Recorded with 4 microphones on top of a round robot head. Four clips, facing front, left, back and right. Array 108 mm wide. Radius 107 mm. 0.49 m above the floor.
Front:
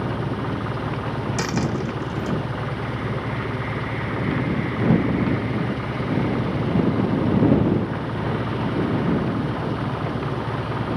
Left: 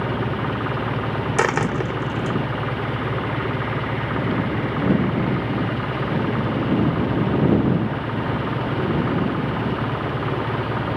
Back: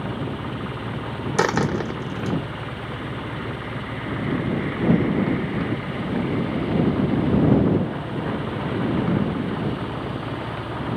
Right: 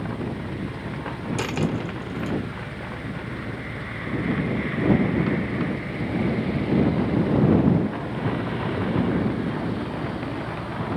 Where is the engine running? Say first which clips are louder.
Left 6 dB, front 3 dB; 70° left.